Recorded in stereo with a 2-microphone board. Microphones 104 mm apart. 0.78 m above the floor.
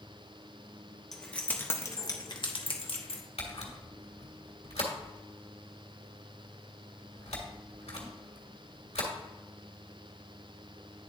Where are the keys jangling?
5° left (ahead or behind), 1.0 m; by 3.2 s 65° left (ahead or behind), 1.0 m.